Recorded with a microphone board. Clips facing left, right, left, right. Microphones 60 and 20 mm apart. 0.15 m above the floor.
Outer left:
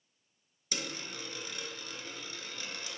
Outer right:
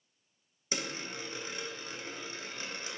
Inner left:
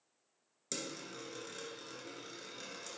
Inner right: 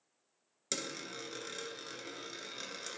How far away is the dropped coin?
About 0.5 m.